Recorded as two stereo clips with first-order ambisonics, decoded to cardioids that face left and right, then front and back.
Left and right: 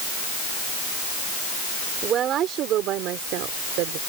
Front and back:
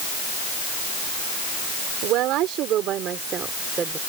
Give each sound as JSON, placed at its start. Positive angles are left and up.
{"t": 2.0, "sound": "a woman speaking", "azimuth_deg": -145}